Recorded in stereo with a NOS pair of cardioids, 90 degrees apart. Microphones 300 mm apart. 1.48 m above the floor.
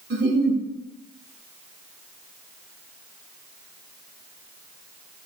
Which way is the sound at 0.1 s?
35° right.